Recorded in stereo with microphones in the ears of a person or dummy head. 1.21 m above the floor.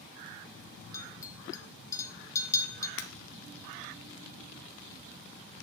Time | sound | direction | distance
0.9 | a clink | 20° left (ahead or behind) | 0.6 m
3.0 | breaking glass | 65° left (ahead or behind) | 0.7 m